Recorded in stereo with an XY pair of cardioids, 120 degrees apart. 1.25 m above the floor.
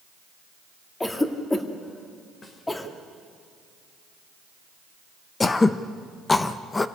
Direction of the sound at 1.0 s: 15° left.